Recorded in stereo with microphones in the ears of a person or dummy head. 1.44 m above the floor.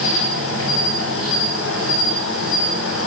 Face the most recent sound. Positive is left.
turn(degrees=85)